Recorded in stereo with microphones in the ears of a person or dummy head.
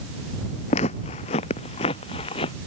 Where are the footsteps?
35° left (ahead or behind); by 2.5 s 30° left (ahead or behind).